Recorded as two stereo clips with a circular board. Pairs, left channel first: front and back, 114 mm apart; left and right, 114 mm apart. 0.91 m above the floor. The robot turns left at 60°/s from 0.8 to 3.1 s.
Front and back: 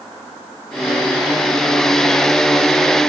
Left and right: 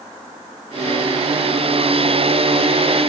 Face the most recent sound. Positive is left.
No sound to turn to.